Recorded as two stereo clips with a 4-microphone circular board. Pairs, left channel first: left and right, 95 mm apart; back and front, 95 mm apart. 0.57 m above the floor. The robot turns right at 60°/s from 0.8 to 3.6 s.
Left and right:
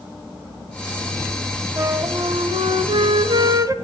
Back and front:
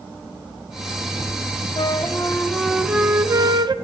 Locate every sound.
1.8 s a flute: 150° right, 0.8 m; by 3.7 s 40° right, 0.8 m